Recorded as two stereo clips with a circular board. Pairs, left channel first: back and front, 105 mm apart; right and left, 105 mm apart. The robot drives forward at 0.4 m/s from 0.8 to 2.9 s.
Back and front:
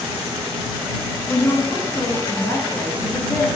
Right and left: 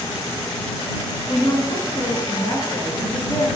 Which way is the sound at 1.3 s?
115° right.